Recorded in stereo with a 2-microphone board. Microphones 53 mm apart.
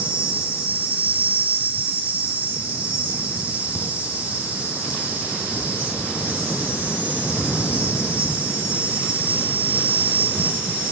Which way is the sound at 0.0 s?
30° right (ahead or behind).